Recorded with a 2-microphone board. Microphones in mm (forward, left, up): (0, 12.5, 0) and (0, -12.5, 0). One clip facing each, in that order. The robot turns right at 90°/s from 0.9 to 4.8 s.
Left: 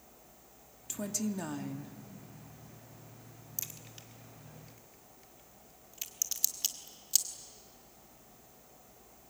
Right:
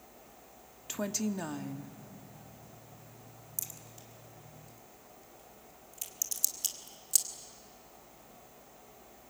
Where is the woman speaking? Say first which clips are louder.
Right 2 dB; 60° right, 1.0 m; by 2.0 s 35° left, 1.0 m.